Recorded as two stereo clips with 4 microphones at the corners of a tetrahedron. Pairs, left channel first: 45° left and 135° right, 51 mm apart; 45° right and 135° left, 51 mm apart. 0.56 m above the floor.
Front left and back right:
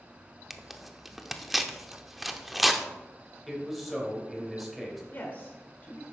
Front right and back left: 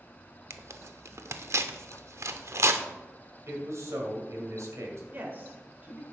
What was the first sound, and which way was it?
Tearing paper, 135° left.